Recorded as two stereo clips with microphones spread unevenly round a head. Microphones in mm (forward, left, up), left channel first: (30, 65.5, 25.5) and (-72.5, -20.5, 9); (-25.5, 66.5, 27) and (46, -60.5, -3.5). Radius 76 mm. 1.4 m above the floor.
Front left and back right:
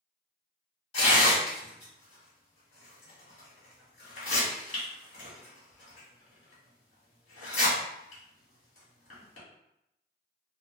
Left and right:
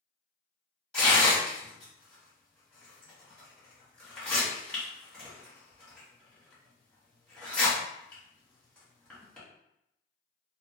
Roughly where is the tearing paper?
Ahead left.